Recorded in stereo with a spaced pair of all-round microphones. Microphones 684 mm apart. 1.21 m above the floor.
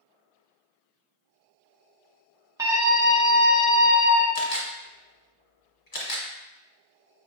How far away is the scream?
About 0.8 m.